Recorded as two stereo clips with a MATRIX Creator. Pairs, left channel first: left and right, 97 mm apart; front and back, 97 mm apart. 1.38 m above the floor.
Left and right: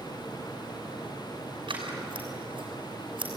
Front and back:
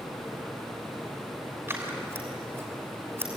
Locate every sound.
1.7 s scissors: 120° right, 6 m